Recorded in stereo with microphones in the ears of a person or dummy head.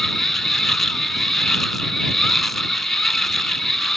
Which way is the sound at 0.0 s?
5° right (ahead or behind).